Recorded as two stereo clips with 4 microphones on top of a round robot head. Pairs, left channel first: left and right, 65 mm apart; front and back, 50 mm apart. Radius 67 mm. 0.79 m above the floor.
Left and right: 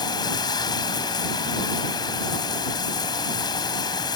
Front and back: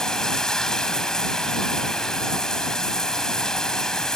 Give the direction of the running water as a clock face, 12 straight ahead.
9 o'clock.